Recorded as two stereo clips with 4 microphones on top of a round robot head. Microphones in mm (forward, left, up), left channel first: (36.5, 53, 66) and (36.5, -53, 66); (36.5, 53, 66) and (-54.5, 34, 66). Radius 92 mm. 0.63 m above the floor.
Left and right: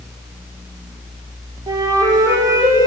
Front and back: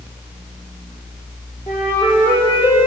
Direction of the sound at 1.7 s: 35° right.